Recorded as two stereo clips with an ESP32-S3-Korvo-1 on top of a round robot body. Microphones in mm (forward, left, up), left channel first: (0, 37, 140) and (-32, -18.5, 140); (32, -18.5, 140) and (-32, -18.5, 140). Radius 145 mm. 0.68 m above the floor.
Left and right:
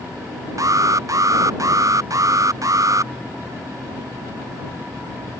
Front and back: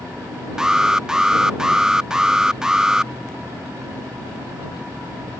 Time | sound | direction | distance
0.6 | an alarm | 100° right | ?